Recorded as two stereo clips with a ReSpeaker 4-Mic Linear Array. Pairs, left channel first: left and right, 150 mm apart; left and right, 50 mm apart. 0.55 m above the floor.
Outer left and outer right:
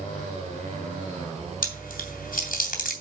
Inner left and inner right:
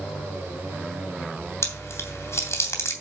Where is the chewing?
70° left (ahead or behind), 2.5 m.